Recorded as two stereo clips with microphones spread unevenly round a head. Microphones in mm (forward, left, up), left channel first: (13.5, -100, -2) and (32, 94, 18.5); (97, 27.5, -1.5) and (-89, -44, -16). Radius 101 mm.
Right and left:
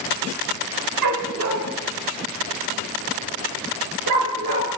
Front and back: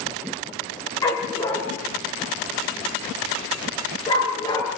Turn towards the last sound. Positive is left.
turn(degrees=90)